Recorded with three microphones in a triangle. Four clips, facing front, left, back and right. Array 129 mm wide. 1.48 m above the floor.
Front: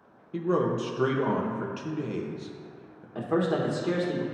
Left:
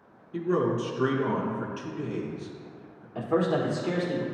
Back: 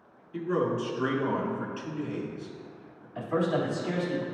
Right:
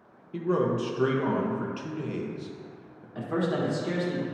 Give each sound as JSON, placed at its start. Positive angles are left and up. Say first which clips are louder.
{"t": 0.3, "sound": "a man speaking", "louder": "even, front 2 dB", "azimuth_deg": -25, "distance_m": 1.0}
{"t": 3.1, "sound": "a man speaking", "louder": "left 3 dB, front 1 dB", "azimuth_deg": 15, "distance_m": 1.5}